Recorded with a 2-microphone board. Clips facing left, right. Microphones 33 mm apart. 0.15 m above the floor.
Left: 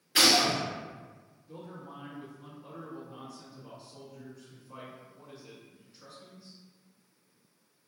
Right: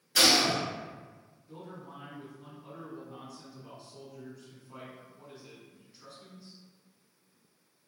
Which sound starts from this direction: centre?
A man speaking, at 1.5 s.